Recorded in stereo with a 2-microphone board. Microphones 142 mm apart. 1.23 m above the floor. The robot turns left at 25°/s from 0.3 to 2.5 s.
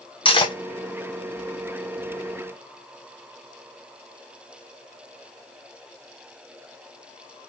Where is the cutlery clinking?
40° left (ahead or behind), 0.7 m; by 0.6 s 35° left (ahead or behind), 0.7 m.